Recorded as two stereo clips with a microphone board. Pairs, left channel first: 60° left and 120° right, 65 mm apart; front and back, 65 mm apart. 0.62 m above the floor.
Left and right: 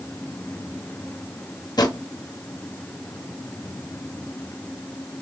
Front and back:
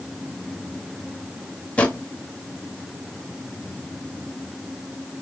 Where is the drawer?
70° left, 0.6 m.